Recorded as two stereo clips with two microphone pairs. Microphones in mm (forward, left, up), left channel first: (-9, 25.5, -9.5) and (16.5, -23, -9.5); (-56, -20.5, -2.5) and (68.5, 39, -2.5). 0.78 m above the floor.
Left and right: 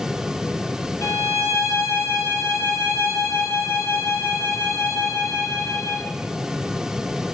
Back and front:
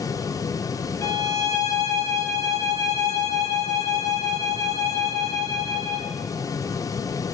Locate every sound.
1.0 s a violin: 140° left, 0.9 m